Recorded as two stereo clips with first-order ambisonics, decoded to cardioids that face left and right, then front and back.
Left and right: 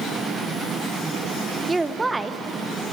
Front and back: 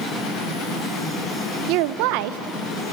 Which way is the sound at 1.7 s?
170° right.